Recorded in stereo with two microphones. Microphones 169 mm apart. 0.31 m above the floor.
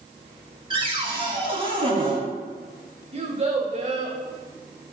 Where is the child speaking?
40° right (ahead or behind), 0.7 m.